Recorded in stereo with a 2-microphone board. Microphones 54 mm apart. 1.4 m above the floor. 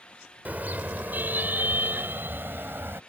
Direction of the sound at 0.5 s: 30° right (ahead or behind).